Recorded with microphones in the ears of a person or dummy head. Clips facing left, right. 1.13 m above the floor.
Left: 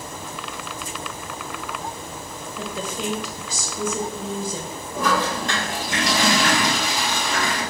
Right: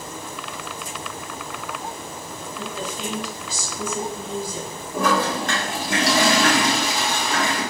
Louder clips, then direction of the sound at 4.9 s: Right 2 dB; 50° right (ahead or behind).